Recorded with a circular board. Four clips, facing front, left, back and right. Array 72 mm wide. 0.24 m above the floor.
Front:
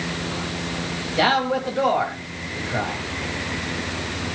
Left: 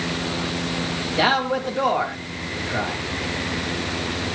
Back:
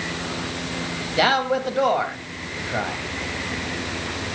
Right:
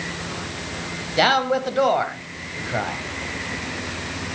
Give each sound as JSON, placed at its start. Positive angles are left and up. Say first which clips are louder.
{"t": 1.2, "sound": "a man speaking", "louder": "right 2 dB, even", "azimuth_deg": -110, "distance_m": 1.3}